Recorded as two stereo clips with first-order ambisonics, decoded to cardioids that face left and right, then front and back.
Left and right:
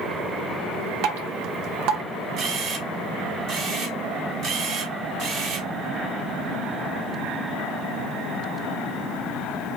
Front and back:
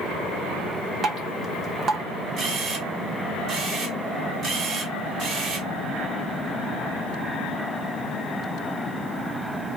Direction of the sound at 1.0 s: 115° right.